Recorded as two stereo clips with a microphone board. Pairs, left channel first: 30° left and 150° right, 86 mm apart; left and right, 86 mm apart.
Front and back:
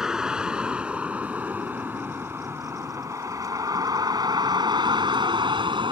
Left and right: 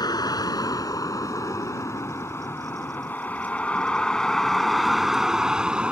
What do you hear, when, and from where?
0.0 s a vehicle: 130° left; by 5.9 s 170° right